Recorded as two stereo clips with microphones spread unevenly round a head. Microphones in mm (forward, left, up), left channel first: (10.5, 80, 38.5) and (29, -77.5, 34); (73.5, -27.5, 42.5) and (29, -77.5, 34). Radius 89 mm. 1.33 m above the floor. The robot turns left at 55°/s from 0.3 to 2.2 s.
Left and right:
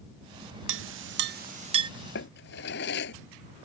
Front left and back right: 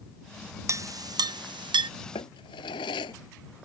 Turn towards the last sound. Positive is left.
turn(degrees=80)